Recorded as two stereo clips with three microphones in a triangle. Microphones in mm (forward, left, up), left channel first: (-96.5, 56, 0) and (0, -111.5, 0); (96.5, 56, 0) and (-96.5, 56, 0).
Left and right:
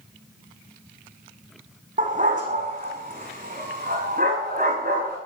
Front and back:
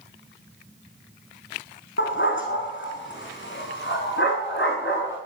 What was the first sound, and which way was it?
A dog barking, 15° right.